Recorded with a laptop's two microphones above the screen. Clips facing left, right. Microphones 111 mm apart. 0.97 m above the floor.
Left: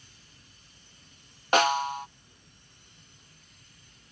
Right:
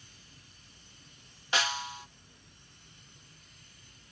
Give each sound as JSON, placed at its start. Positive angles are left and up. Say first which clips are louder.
{"t": 1.5, "sound": "a snare drum", "louder": "left 10 dB", "side_deg": 50}